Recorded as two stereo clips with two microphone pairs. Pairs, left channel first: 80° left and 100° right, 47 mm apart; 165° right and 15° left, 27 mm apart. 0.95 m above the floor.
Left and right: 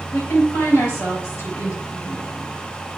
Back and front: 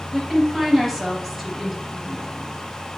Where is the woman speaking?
110° left, 4.5 m.